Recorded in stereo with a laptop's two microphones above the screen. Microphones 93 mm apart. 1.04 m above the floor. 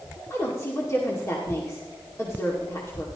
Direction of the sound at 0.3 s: 35° left (ahead or behind).